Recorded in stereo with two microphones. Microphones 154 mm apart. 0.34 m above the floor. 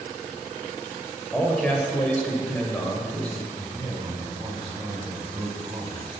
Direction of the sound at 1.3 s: 10° left (ahead or behind).